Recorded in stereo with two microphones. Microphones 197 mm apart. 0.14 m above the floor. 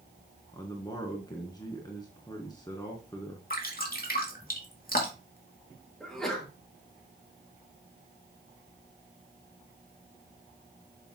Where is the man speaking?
20° left (ahead or behind), 1.4 m.